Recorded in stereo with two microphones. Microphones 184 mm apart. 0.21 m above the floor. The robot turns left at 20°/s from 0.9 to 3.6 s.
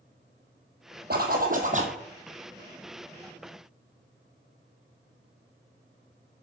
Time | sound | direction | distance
1.1 | a zipper | 55° right (ahead or behind) | 1.5 m